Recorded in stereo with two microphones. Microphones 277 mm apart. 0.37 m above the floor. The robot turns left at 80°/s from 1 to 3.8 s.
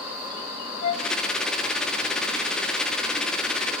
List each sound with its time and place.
0.8 s a flute: 65° left (ahead or behind), 0.7 m; by 1.1 s 70° left (ahead or behind), 0.7 m